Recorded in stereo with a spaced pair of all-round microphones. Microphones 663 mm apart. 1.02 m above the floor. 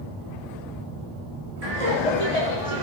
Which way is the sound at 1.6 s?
60° right (ahead or behind).